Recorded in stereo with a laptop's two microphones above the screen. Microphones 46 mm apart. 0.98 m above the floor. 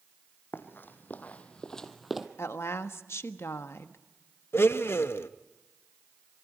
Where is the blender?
60° left (ahead or behind), 0.8 m.